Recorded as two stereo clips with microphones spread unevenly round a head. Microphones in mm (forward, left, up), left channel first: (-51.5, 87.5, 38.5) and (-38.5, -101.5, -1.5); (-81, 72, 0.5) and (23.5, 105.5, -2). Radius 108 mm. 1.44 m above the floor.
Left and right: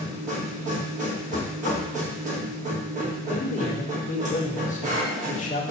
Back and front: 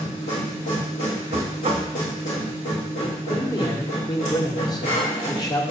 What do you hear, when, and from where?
0.0 s a machine running: 135° right, 2 m
1.3 s knocking: 40° left, 1.1 m
3.3 s a man speaking: 145° left, 1.5 m